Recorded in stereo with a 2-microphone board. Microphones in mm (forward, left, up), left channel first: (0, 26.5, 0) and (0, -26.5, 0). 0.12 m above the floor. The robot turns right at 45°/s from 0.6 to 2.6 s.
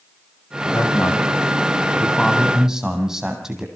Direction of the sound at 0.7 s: 105° left.